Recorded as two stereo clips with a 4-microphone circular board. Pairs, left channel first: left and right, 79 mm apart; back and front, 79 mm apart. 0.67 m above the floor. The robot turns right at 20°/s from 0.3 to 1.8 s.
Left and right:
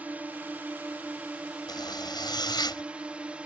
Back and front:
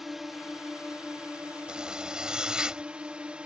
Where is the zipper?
80° left.